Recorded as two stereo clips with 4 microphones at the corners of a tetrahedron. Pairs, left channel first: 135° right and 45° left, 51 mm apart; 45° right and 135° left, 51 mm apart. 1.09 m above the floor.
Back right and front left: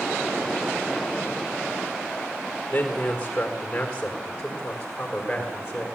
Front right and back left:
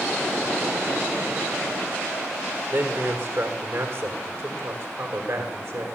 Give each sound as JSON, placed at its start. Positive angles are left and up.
{"t": 2.7, "sound": "a man speaking", "azimuth_deg": 160, "distance_m": 3.5}